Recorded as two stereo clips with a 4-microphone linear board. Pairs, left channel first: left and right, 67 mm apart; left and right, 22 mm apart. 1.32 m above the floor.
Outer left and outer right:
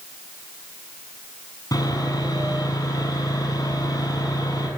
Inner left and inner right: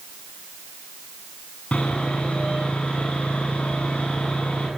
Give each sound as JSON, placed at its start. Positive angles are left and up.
{"t": 1.7, "sound": "sawing", "side_deg": 70, "distance_m": 7.0}